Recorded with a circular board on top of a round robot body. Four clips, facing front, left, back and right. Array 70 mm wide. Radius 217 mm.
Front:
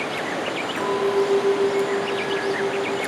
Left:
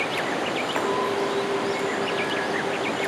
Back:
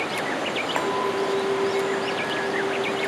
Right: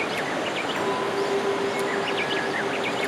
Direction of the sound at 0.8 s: 155° left.